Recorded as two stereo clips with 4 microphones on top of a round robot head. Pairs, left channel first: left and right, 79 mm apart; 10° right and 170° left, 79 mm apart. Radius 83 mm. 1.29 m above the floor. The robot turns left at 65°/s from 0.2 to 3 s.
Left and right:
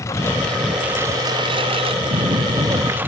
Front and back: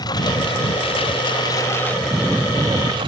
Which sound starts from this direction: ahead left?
A lawn mower, at 0.0 s.